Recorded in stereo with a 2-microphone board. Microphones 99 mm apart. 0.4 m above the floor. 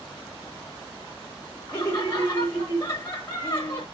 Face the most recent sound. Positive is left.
turn(degrees=25)  # may be behind; listen again after turning